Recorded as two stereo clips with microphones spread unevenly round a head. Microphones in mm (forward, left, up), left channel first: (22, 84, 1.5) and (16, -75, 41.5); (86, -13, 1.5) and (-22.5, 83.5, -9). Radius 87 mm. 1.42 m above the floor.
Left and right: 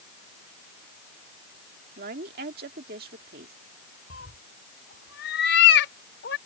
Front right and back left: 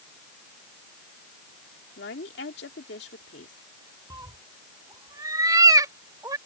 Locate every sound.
2.0 s a woman speaking: 60° right
4.1 s a cat meowing: 75° left